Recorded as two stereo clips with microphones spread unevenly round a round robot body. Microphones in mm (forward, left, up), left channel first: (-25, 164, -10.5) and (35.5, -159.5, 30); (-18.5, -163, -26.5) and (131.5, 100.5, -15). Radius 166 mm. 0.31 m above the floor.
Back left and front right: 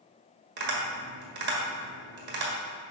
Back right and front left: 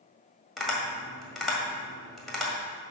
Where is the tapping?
35° right, 1.8 m.